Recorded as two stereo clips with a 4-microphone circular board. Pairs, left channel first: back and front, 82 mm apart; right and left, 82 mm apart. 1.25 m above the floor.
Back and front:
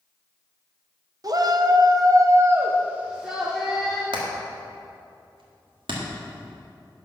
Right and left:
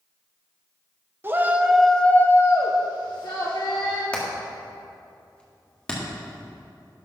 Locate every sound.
1.2 s a shout: 30° left, 1.0 m; by 4.0 s 85° right, 1.9 m
4.1 s hammering: 15° right, 2 m